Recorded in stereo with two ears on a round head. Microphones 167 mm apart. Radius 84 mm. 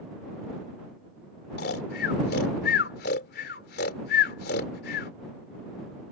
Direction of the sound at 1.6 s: 55° left (ahead or behind).